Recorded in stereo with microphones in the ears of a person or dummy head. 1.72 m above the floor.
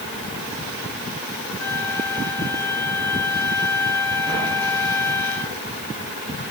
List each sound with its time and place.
1.6 s a flute: 10° left (ahead or behind), 5 m